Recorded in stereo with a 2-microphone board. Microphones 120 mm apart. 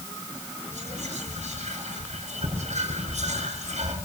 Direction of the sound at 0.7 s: 80° right.